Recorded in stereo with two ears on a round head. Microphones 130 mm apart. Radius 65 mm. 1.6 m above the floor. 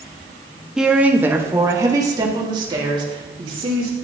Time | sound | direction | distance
0.8 | a woman speaking | 5° right (ahead or behind) | 1.0 m